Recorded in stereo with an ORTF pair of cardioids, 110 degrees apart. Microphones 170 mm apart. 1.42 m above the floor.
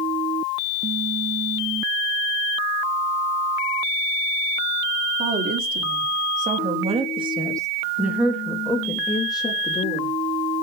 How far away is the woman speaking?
About 4.5 m.